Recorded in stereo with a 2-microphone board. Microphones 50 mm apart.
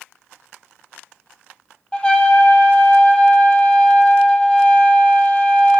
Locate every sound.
1.9 s a trumpet: 20° left (ahead or behind), 1.3 m